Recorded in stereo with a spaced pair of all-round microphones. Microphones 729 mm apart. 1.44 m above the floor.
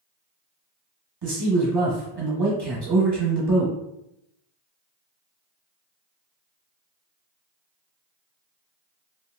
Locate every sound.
1.2 s a man speaking: 35° right (ahead or behind), 1.1 m